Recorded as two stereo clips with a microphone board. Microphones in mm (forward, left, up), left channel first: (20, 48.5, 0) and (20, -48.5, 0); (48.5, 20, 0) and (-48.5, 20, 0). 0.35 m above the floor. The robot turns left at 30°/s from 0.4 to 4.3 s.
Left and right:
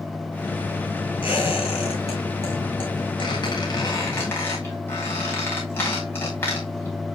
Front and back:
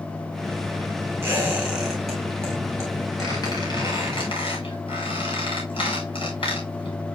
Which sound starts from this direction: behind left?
A squeak, at 1.2 s.